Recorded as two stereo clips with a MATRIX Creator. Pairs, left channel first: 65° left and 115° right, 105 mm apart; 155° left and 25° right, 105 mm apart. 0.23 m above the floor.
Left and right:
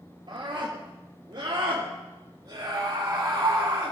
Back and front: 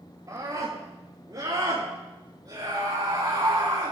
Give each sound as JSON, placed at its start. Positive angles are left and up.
{"t": 0.3, "sound": "a scream", "azimuth_deg": -75, "distance_m": 4.5}